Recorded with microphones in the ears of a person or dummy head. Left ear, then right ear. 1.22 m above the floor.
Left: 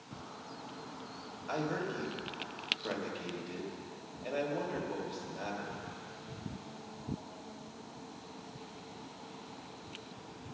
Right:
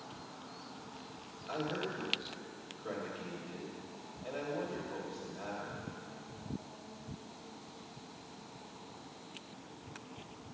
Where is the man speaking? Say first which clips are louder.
Left 2 dB; 30° left (ahead or behind), 4 m.